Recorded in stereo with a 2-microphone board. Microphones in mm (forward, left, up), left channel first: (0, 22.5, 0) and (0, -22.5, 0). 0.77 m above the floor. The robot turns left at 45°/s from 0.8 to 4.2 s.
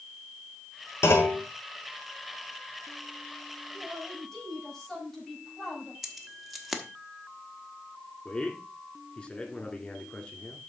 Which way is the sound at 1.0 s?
90° left.